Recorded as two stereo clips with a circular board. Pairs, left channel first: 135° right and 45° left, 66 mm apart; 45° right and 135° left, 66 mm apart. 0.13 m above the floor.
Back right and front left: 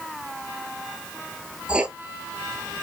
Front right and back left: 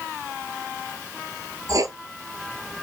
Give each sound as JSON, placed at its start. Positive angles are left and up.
{"t": 1.7, "sound": "writing", "azimuth_deg": 120, "distance_m": 0.7}